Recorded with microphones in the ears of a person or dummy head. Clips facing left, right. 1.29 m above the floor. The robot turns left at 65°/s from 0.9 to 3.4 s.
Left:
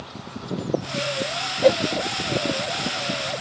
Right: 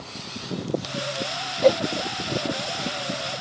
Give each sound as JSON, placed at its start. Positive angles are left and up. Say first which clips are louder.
{"t": 1.6, "sound": "a whoosh", "louder": "left 1 dB", "side_deg": 10}